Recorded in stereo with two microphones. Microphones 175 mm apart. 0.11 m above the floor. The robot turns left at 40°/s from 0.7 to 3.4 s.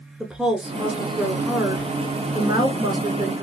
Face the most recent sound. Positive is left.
turn(degrees=-20)  # may be behind; listen again after turning